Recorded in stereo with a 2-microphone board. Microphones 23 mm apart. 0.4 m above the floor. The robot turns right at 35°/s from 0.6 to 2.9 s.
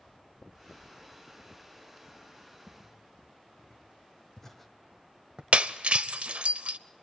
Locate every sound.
2.7 s footsteps: 45° left (ahead or behind), 3 m; by 5.4 s 40° right (ahead or behind), 1.1 m
5.5 s breaking glass: 60° right (ahead or behind), 0.5 m